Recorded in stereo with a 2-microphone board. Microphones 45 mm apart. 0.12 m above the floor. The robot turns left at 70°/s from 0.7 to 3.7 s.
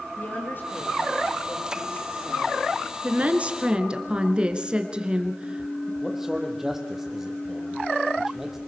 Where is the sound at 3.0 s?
90° right, 2.0 m; by 5.9 s 140° right, 2.0 m.